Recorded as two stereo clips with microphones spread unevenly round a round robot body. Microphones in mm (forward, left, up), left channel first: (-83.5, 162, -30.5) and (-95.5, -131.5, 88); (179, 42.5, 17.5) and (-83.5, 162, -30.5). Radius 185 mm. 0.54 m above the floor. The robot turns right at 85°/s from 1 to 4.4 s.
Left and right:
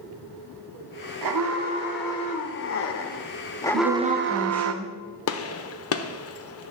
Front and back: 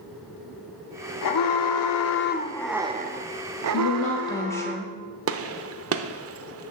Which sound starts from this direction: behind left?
A gunshot, at 5.3 s.